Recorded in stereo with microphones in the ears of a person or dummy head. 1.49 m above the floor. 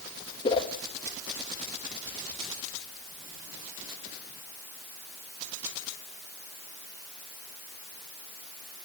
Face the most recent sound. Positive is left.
turn(degrees=30)  # may be behind; listen again after turning